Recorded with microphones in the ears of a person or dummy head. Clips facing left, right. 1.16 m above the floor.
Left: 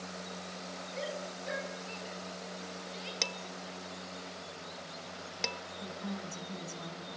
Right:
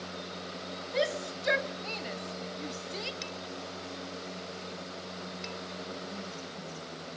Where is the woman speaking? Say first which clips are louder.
Right 1 dB; 70° left (ahead or behind), 10 m.